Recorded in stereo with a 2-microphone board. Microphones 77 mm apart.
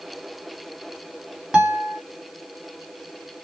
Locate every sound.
1.5 s a guitar: 15° right (ahead or behind), 1.6 m